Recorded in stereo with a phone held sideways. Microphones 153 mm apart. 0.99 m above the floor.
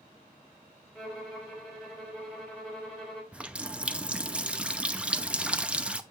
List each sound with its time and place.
0.9 s a violin: centre (ahead or behind), 3 m
3.3 s a running tap: 10° right (ahead or behind), 0.6 m